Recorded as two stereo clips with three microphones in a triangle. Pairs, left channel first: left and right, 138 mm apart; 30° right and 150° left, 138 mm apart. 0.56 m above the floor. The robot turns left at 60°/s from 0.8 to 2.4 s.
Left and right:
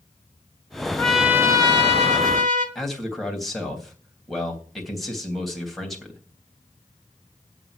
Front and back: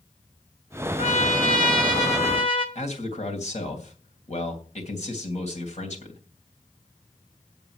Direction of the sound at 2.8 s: Straight ahead.